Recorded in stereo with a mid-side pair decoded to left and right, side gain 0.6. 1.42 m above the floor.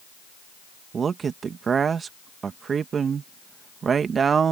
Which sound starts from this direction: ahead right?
A man speaking, at 0.9 s.